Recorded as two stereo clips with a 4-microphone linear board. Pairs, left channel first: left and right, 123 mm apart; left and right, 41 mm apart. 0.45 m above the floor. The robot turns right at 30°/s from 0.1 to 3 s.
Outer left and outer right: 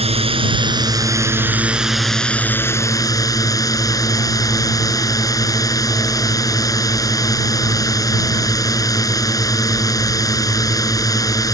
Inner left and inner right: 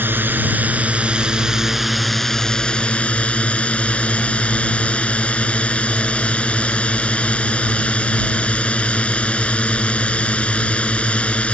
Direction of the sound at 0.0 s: 55° right.